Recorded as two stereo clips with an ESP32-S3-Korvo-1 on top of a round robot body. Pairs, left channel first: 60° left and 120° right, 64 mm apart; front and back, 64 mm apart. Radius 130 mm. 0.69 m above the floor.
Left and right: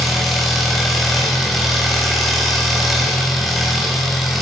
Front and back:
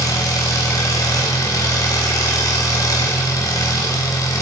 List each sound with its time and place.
0.0 s an engine running: 30° right, 3.5 m